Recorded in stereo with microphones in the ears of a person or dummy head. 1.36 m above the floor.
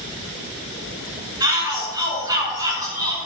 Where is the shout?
15° right (ahead or behind), 6 m.